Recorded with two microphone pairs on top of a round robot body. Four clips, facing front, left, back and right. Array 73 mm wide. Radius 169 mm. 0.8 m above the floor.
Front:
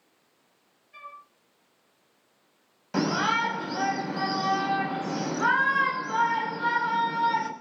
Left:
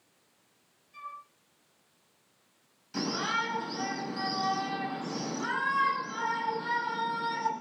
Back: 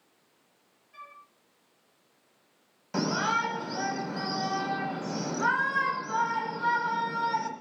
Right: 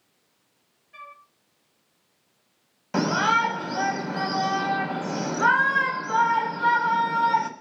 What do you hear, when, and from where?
0.9 s a flute: 75° right, 4 m
2.9 s a shout: 75° right, 6.5 m